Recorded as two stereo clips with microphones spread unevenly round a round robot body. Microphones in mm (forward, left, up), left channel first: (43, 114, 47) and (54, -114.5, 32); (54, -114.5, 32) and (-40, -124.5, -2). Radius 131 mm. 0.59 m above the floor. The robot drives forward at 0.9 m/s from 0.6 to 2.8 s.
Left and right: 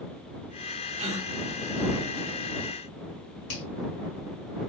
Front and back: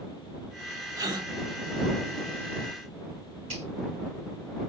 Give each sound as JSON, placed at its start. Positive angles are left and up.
{"t": 1.0, "sound": "a gasp", "azimuth_deg": -140, "distance_m": 1.5}
{"t": 3.5, "sound": "a finger snap", "azimuth_deg": 135, "distance_m": 3.5}